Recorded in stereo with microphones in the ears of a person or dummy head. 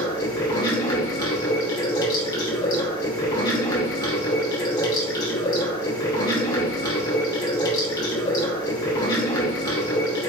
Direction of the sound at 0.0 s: 20° left (ahead or behind).